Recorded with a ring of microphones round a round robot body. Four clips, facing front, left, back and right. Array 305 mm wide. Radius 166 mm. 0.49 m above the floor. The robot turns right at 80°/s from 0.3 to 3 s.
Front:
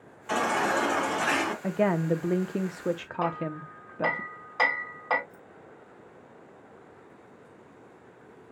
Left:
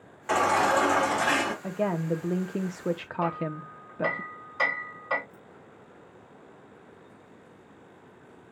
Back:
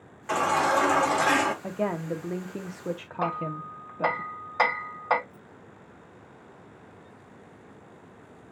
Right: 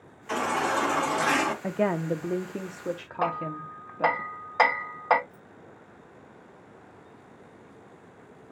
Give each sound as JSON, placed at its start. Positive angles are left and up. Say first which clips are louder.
{"t": 0.3, "sound": "a baby crying", "louder": "left 4 dB, back 3 dB", "azimuth_deg": 110, "distance_m": 2.5}
{"t": 1.6, "sound": "a woman speaking", "louder": "right 2 dB, front 4 dB", "azimuth_deg": -55, "distance_m": 0.7}
{"t": 3.2, "sound": "hammering", "louder": "right 2 dB, back 1 dB", "azimuth_deg": -100, "distance_m": 2.5}
{"t": 5.3, "sound": "keys jangling", "louder": "even, even", "azimuth_deg": 0, "distance_m": 3.0}